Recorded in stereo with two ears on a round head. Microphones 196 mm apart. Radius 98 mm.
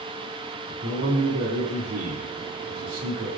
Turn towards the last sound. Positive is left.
turn(degrees=-65)  # may be behind; listen again after turning